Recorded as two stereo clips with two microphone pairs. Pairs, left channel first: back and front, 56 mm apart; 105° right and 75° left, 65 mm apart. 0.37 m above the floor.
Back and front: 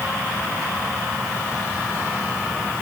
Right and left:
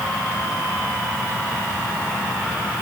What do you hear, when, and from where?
Only background noise.